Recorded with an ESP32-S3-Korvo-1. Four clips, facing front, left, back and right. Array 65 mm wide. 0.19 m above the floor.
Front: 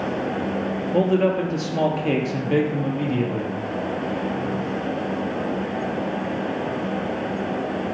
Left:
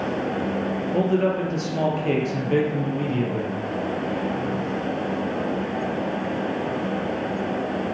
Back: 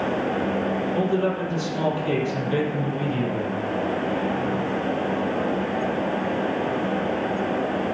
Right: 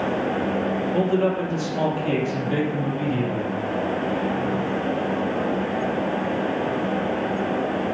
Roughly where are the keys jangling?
No keys jangling in this recording.